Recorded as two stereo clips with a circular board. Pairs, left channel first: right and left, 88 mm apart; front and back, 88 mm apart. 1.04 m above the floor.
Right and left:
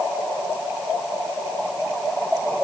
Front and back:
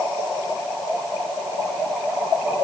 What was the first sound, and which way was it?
Only background noise.